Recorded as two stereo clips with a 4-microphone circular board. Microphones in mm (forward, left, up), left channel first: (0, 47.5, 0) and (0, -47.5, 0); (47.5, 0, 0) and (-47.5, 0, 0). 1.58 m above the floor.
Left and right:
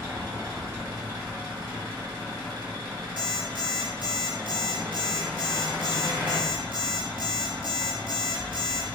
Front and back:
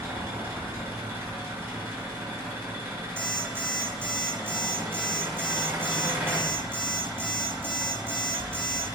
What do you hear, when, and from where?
0.0 s an engine running: 125° right, 1.4 m
3.2 s an alarm clock: 145° right, 1.2 m